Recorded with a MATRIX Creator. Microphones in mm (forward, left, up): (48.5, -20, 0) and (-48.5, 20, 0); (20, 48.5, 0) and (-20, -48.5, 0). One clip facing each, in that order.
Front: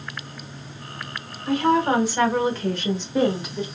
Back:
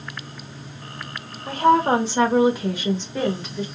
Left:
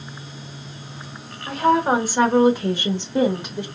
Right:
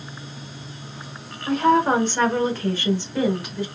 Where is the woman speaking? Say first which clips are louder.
Back 2 dB, even; 155° left, 1.2 m; by 3.6 s 25° left, 1.1 m.